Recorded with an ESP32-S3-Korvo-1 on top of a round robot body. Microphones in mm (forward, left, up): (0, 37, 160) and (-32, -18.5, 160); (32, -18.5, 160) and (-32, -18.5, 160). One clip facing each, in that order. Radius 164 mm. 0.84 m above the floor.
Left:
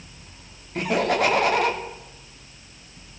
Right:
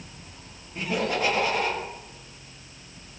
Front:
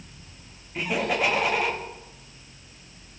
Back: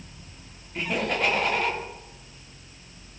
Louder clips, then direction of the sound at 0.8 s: Left 5 dB, front 1 dB; 85° left.